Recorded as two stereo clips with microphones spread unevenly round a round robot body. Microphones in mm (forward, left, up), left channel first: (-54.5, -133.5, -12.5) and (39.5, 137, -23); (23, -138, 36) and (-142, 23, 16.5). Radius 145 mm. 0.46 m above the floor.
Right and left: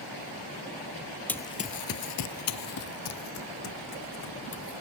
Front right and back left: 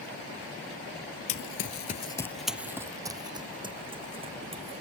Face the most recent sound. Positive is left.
turn(degrees=-160)